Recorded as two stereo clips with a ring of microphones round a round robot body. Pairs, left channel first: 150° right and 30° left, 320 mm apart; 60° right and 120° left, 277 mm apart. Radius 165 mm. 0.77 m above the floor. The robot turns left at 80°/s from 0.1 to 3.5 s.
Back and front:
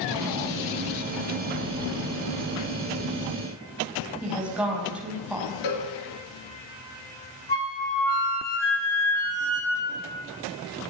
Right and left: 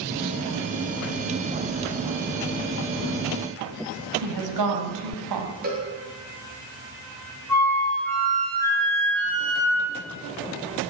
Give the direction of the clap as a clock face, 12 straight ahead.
No clap in this recording.